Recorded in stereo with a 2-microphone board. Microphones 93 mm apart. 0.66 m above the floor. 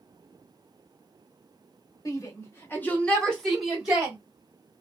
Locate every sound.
2.0 s a shout: 40° left (ahead or behind), 1.4 m; by 4.2 s 10° right (ahead or behind), 1.5 m